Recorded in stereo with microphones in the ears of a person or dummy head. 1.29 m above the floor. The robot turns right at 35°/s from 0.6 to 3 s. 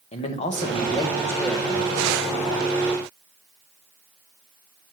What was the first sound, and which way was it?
A man speaking, 145° left.